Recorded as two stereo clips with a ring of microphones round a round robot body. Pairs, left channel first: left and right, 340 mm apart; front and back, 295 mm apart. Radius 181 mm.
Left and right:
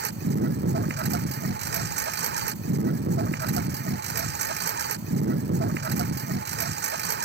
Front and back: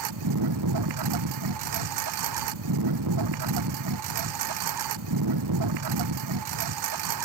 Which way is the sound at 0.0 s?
150° right.